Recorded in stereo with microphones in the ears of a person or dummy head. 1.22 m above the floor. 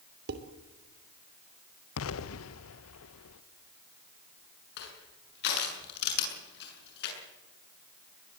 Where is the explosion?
75° left (ahead or behind), 1.2 m.